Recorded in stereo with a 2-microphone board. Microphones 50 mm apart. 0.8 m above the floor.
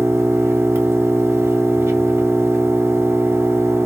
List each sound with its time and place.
0.0 s an engine running: 60° right (ahead or behind), 0.8 m